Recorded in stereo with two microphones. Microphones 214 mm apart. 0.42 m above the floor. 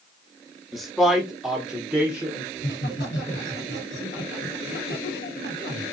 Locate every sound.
0.7 s a man speaking: centre (ahead or behind), 0.8 m; by 2.5 s 5° right (ahead or behind), 1.0 m
2.5 s laughter: 55° left (ahead or behind), 2.0 m